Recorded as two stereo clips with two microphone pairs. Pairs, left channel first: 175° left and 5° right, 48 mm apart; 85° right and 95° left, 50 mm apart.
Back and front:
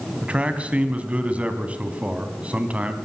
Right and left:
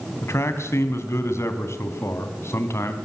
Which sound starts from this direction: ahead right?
A man speaking, at 0.2 s.